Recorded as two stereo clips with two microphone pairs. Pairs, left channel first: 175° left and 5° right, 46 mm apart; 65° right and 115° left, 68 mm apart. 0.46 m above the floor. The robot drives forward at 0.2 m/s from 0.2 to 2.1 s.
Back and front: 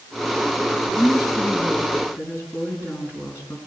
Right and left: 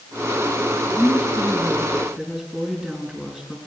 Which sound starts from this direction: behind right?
A woman speaking, at 0.9 s.